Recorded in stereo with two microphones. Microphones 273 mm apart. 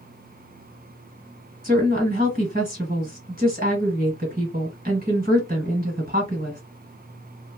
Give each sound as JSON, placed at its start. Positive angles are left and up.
{"t": 1.6, "sound": "a woman speaking", "side_deg": -35, "distance_m": 1.9}